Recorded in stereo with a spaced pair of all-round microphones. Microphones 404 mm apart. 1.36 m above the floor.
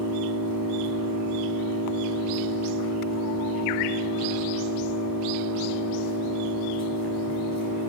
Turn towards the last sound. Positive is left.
turn(degrees=-55)  # may be behind; listen again after turning